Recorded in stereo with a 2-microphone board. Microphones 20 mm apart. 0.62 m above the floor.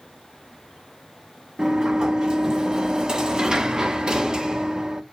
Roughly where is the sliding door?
Right.